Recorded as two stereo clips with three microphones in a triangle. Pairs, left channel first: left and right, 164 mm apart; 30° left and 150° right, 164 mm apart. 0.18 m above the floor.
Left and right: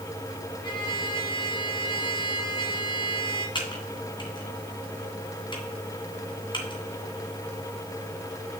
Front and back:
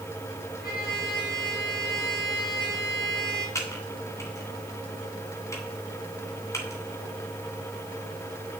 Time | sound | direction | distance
0.6 | a trumpet | 30° left | 3.5 m
3.5 | typing on a keyboard | 80° left | 1.8 m